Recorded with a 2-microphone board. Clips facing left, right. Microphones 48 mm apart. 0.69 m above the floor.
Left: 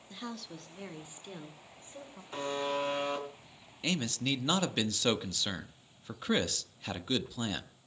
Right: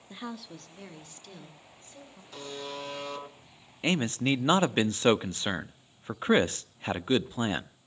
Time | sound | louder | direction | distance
0.1 | a woman speaking | right 2 dB | 20° right (ahead or behind) | 1.0 m
2.3 | a buzzer | left 6 dB | 30° left (ahead or behind) | 4.5 m
3.8 | a man speaking | right 6 dB | 30° right (ahead or behind) | 0.6 m